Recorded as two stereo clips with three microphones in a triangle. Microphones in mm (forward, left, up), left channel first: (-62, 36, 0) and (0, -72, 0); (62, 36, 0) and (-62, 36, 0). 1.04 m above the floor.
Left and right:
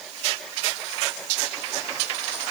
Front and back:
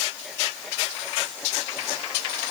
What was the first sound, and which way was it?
Only background noise.